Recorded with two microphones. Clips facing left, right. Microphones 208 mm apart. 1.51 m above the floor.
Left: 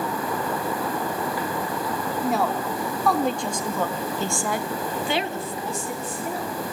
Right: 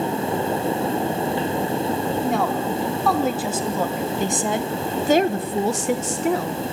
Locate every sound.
2.2 s a woman speaking: 5° left (ahead or behind), 4.5 m; by 6.6 s 70° right (ahead or behind), 1.8 m